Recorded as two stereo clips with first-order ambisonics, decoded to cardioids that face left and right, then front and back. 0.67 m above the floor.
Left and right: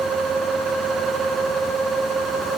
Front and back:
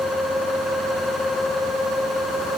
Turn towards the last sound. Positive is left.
No sound to turn to.